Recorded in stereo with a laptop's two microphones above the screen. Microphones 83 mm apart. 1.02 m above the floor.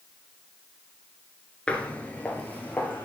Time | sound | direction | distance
1.7 | footsteps | 15° left (ahead or behind) | 1.0 m